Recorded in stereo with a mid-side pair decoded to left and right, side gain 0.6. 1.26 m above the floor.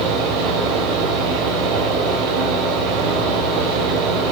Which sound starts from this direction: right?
A fan, at 0.0 s.